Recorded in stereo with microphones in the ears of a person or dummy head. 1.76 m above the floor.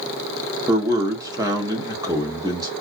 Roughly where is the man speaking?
Centre.